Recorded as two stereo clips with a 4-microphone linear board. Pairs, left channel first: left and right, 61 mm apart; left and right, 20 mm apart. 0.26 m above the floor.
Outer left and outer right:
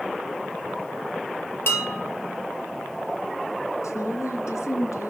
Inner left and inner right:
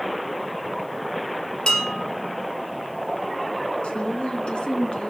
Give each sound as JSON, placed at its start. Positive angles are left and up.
{"t": 1.7, "sound": "dishes clattering", "side_deg": 40, "distance_m": 3.5}
{"t": 3.8, "sound": "a woman speaking", "side_deg": 55, "distance_m": 3.5}